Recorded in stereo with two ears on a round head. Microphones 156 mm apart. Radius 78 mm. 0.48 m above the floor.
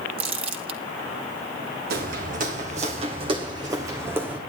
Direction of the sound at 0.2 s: 35° right (ahead or behind).